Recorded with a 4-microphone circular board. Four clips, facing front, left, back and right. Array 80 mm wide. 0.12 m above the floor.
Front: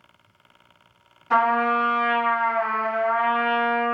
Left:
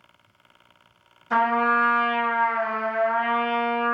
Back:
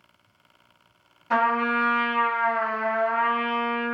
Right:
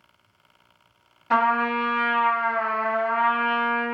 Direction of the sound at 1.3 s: 90° right.